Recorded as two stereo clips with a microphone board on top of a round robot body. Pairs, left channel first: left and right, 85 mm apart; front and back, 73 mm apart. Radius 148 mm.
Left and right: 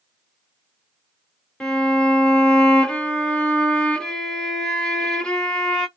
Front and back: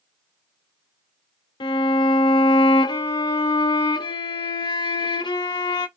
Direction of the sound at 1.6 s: 10° left.